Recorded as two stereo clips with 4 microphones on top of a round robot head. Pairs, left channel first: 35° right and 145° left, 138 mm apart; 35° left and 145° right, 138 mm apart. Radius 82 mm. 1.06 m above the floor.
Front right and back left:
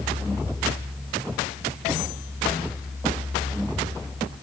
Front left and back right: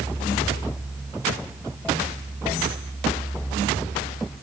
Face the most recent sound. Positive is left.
No sound to turn to.